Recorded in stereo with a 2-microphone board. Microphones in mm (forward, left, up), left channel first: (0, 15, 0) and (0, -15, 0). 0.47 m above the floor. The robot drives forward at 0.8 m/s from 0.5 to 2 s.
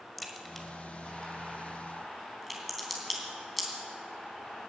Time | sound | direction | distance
0.2 | a crack | centre (ahead or behind) | 1.5 m